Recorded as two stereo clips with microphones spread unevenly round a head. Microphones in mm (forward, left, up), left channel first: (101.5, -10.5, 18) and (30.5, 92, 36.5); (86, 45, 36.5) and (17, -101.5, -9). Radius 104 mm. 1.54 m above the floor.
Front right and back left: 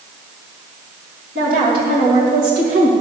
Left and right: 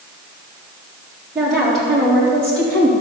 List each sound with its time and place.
1.4 s a woman speaking: 155° left, 3 m; by 2.9 s 145° left, 2.5 m